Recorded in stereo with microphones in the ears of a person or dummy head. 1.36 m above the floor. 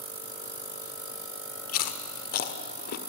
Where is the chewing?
45° left (ahead or behind), 1.4 m.